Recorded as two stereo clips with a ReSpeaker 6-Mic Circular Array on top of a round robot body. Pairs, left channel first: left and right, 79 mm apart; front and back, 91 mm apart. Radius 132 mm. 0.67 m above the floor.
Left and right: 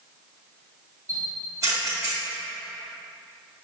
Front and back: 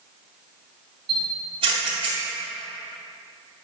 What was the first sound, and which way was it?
A camera shutter, 145° right.